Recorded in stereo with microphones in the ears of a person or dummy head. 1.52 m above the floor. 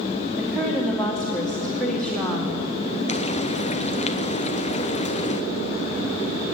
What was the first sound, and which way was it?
A woman speaking, 5° left (ahead or behind).